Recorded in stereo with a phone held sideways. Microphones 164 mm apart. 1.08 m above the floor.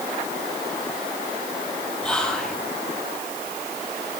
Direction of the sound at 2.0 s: 5° left (ahead or behind).